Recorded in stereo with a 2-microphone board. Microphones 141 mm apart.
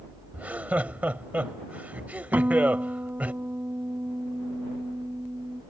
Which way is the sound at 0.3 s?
10° right (ahead or behind).